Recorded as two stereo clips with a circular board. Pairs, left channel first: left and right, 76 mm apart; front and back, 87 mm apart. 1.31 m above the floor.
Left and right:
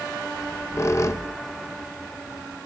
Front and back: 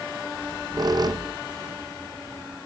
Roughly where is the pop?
I don't hear a pop.